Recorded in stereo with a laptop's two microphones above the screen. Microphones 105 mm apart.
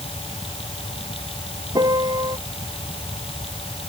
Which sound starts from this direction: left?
A fan, at 0.0 s.